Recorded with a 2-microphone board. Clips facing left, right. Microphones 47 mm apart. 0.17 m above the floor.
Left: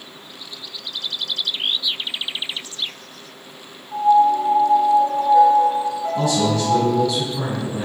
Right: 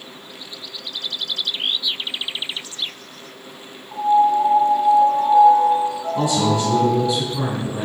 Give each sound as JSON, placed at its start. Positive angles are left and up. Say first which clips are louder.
{"t": 3.9, "sound": "a piano", "louder": "left 1 dB", "side_deg": -20, "distance_m": 1.8}
{"t": 6.2, "sound": "a man speaking", "louder": "right 1 dB", "side_deg": -20, "distance_m": 1.2}